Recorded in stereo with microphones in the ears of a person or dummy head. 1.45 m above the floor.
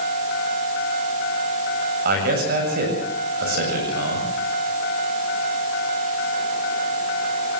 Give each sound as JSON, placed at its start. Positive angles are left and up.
{"t": 2.0, "sound": "a man speaking", "side_deg": -45, "distance_m": 7.5}